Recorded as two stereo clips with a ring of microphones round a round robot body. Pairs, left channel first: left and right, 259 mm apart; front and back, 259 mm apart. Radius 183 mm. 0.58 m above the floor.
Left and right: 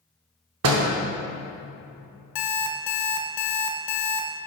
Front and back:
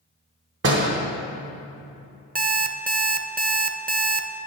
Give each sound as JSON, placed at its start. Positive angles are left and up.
{"t": 0.6, "sound": "a door slam", "azimuth_deg": -125, "distance_m": 0.7}
{"t": 2.4, "sound": "an alarm clock", "azimuth_deg": 120, "distance_m": 0.7}